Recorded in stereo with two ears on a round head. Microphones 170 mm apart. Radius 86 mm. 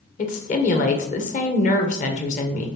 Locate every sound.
0.2 s a woman speaking: 40° left (ahead or behind), 1.4 m